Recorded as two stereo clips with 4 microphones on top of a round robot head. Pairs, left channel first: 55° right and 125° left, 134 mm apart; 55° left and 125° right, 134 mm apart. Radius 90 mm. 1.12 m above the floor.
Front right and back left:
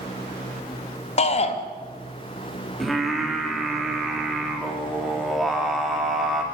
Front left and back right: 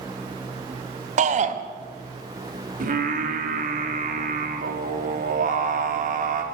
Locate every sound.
1.2 s a shout: 95° right, 1.9 m
2.8 s singing: 145° right, 3 m